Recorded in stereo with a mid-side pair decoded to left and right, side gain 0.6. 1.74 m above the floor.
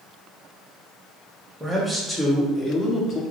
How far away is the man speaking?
About 1.3 m.